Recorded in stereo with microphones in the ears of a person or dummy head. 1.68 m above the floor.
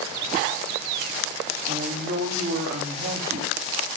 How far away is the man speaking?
About 4.5 m.